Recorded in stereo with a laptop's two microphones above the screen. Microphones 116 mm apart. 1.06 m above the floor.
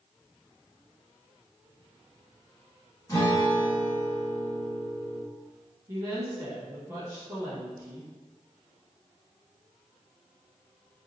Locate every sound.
3.1 s a guitar: 30° left (ahead or behind), 1.4 m
5.9 s a woman speaking: 25° right (ahead or behind), 1.2 m